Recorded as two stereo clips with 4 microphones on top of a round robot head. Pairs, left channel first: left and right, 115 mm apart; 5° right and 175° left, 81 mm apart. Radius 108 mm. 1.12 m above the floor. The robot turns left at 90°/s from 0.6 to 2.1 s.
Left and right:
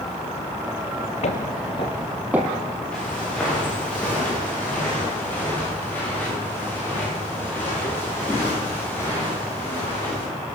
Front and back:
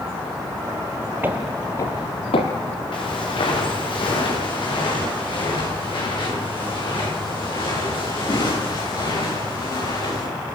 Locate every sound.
1.2 s footsteps: 110° left, 1.8 m; by 2.8 s 20° right, 3 m
2.9 s footsteps: 5° left, 8.5 m; by 10.2 s 15° left, 16.5 m